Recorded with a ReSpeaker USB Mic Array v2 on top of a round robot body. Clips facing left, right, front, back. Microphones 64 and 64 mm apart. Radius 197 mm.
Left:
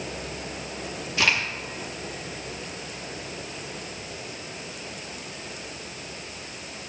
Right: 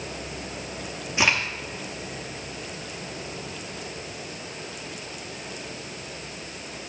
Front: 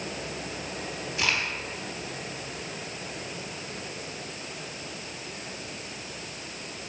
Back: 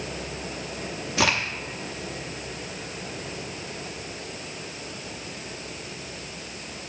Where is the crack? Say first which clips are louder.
Right 1 dB, back 5 dB; 160° right, 0.6 m.